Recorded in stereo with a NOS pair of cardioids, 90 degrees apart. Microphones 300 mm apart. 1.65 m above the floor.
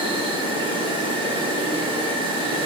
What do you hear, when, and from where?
0.0 s an insect: 15° right, 2 m